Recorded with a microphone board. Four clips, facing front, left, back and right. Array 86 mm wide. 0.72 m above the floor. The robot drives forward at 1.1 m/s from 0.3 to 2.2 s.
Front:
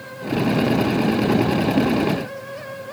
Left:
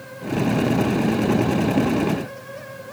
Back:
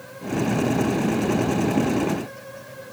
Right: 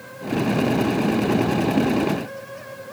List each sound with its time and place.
Only background noise.